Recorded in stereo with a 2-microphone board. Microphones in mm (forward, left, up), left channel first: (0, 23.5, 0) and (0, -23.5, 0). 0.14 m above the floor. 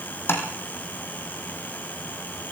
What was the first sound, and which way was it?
Tapping, 55° left (ahead or behind).